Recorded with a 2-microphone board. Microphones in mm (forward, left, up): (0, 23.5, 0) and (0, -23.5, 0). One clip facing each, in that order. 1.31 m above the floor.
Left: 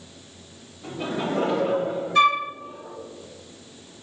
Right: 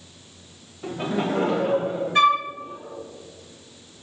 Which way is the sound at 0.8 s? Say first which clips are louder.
Right 2 dB; 70° right (ahead or behind).